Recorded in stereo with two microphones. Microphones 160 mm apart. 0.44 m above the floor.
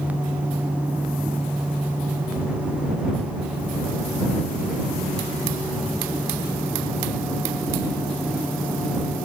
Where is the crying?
No crying in this recording.